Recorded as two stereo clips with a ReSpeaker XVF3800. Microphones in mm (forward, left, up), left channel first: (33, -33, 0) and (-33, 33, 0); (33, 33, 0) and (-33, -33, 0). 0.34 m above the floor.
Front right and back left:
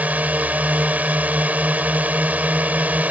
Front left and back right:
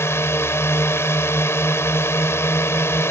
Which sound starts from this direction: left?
A drone, at 0.0 s.